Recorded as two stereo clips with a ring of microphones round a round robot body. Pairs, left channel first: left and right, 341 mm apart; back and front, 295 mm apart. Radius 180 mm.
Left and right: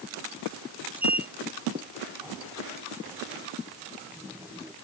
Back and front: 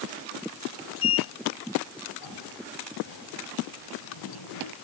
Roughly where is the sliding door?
Behind.